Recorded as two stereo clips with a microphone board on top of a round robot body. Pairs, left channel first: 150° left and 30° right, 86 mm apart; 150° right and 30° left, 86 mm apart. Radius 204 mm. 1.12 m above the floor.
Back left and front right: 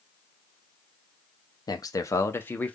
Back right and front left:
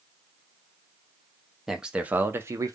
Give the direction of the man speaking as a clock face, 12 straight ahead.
8 o'clock.